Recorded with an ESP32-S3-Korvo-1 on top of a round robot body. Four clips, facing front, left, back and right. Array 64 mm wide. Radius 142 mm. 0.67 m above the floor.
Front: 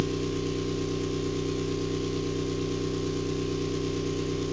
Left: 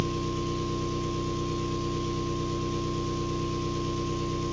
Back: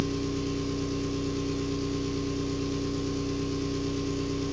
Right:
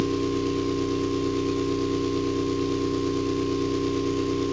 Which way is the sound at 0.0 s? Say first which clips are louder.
Right 6 dB, front 1 dB; 80° right.